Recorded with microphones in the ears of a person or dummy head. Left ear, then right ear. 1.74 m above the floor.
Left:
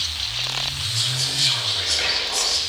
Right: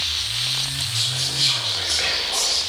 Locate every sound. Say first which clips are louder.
0.9 s whispering: even; centre (ahead or behind), 2.5 m